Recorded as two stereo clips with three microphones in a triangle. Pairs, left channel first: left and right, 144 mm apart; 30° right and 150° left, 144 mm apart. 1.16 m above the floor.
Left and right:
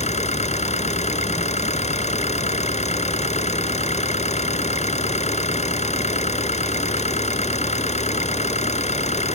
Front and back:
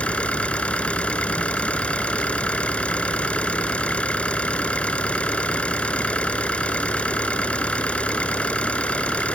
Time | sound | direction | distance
0.0 | an engine running | 50° left | ?